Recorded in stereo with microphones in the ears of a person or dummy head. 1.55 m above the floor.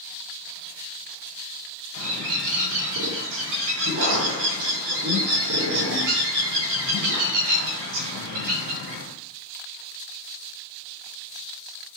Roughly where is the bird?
Right.